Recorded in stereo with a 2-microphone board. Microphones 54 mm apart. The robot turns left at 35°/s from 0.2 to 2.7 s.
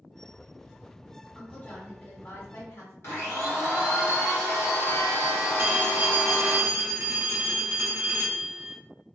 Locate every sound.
1.4 s a woman speaking: 155° left, 1.3 m; by 2.9 s 110° left, 1.3 m
3.0 s a blender: 55° left (ahead or behind), 1.1 m
5.6 s a phone ringing: 50° right (ahead or behind), 0.6 m